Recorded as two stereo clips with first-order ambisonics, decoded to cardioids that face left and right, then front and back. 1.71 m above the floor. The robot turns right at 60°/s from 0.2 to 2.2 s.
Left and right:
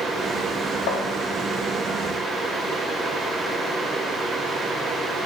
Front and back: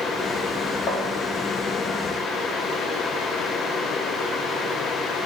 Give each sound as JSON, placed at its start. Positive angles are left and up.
{"t": 0.9, "sound": "tapping", "azimuth_deg": 65, "distance_m": 1.8}